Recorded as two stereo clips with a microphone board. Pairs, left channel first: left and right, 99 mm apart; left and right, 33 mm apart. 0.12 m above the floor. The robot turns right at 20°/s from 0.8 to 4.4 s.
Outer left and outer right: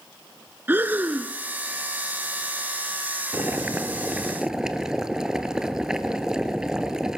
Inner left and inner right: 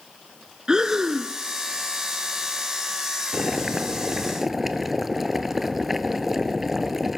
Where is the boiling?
25° right (ahead or behind), 1.0 m; by 7.2 s 5° right (ahead or behind), 1.0 m.